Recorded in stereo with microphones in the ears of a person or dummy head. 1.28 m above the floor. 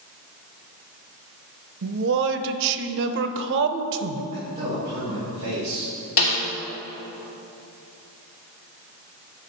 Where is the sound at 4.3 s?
35° right (ahead or behind), 2.5 m.